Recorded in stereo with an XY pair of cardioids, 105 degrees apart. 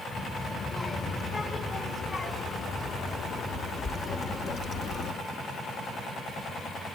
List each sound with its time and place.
0.1 s a child speaking: 30° left, 6 m; by 5.2 s 60° left, 2.5 m